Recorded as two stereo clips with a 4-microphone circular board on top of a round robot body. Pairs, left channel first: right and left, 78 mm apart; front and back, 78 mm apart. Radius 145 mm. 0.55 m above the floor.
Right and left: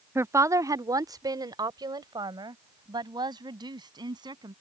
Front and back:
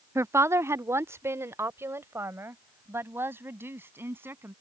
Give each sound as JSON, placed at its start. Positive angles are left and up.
{"t": 0.1, "sound": "a woman speaking", "azimuth_deg": 135}